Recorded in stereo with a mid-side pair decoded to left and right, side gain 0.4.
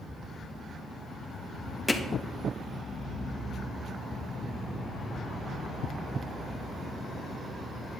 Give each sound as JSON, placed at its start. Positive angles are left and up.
{"t": 1.9, "sound": "hammering", "azimuth_deg": 15, "distance_m": 2.0}